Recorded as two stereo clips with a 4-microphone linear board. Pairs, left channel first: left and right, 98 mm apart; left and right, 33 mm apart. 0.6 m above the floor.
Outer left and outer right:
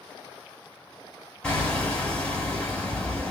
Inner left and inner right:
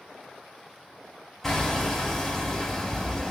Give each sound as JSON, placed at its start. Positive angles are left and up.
{"t": 1.4, "sound": "hammering", "side_deg": 10, "distance_m": 3.0}